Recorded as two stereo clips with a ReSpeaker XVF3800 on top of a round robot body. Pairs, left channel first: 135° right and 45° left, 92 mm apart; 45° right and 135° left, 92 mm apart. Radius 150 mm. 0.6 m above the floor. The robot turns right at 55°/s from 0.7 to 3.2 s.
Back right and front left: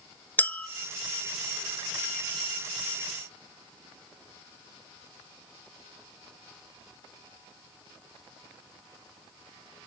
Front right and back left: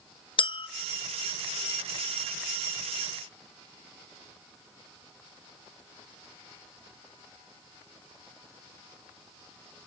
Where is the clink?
65° right, 0.8 m.